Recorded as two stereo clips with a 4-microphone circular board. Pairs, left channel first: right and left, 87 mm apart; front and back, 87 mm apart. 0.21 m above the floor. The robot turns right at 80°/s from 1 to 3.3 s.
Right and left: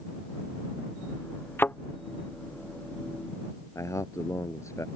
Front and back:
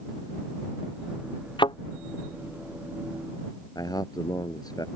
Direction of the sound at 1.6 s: 25° right.